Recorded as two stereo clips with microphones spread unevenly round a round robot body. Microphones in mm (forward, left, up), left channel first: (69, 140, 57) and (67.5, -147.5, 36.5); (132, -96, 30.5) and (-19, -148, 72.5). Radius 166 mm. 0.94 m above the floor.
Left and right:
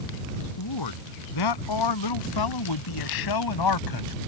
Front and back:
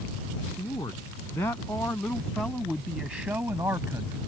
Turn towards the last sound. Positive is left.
turn(degrees=120)